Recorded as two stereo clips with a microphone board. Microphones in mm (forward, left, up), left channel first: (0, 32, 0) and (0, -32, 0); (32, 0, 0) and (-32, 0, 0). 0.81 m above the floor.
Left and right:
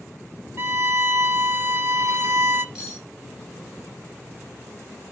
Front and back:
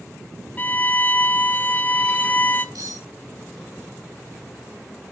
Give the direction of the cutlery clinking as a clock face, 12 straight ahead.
6 o'clock.